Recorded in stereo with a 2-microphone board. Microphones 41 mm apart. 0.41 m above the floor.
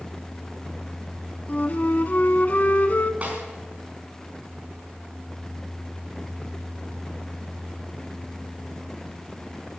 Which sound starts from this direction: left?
A flute, at 1.5 s.